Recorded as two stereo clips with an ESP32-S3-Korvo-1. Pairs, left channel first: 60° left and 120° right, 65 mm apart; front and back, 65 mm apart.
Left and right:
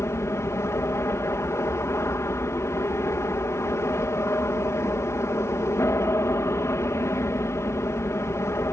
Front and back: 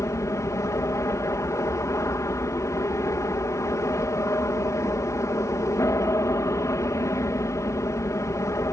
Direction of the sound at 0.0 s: 25° left.